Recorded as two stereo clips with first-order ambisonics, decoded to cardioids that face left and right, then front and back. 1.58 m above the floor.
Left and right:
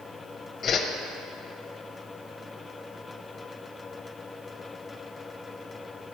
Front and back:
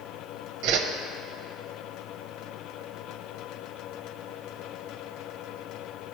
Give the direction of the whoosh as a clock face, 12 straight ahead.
7 o'clock.